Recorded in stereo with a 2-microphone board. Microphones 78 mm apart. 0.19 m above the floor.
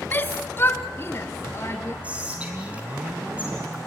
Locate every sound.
0.1 s a shout: 25° left (ahead or behind), 1.5 m; by 1.9 s 35° left (ahead or behind), 3.5 m
2.0 s whispering: 20° right (ahead or behind), 1.8 m